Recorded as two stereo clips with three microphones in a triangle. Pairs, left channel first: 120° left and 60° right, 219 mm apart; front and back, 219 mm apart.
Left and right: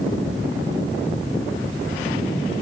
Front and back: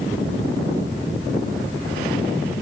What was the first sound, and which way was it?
Only background noise.